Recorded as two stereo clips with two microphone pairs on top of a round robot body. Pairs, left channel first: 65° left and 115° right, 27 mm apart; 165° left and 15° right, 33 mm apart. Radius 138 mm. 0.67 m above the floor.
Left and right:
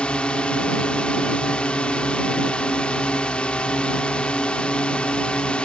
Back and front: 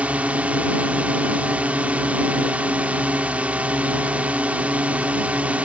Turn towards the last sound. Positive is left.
turn(degrees=30)